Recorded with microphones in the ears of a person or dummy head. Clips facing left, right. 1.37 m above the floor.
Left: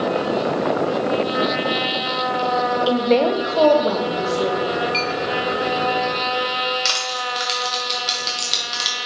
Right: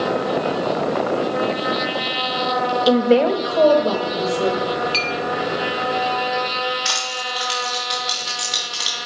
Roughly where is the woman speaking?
Right.